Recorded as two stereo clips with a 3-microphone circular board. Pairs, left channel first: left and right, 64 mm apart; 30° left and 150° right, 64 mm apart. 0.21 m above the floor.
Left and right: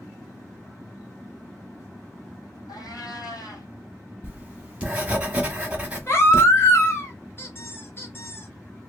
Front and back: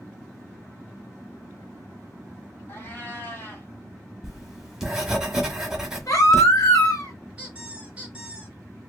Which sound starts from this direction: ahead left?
A baby crying, at 6.1 s.